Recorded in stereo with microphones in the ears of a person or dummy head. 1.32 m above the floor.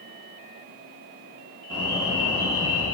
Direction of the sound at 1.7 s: 20° right (ahead or behind).